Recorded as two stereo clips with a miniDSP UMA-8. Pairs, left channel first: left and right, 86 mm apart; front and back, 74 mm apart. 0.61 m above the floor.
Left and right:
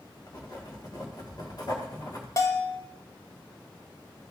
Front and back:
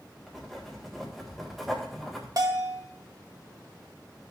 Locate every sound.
0.3 s writing: 90° left, 1.5 m
2.4 s a bell: 145° left, 0.8 m